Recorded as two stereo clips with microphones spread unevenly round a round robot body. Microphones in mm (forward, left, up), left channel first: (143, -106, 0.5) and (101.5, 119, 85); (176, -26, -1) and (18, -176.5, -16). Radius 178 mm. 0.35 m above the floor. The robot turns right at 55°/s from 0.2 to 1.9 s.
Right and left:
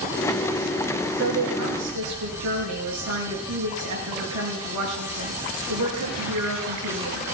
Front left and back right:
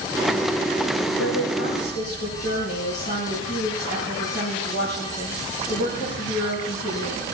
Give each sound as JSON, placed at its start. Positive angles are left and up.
{"t": 1.2, "sound": "a woman speaking", "azimuth_deg": 70, "distance_m": 6.5}